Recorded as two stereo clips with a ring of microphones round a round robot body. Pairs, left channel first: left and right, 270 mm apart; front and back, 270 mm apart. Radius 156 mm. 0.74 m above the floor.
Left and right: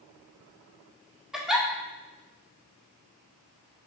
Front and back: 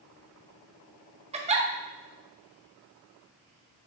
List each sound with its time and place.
1.3 s a giggle: 175° right, 0.6 m